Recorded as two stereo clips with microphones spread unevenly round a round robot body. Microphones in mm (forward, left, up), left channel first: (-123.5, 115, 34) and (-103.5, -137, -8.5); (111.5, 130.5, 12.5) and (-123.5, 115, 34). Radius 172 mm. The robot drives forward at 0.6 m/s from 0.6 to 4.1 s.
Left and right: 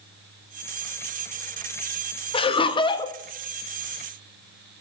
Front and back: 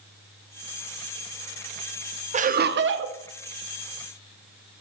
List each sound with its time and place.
2.3 s laughter: 160° left, 0.6 m; by 3.2 s 175° left, 1.0 m